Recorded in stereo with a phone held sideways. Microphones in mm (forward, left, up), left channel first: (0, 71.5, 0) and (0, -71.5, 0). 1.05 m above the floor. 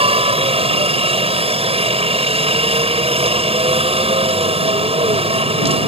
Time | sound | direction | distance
0.0 | a helicopter | 40° right (ahead or behind) | ?